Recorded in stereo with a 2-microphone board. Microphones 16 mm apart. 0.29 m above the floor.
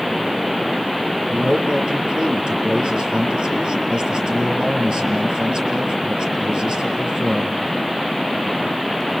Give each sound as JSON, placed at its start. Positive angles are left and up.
{"t": 1.3, "sound": "a man speaking", "side_deg": -60, "distance_m": 6.0}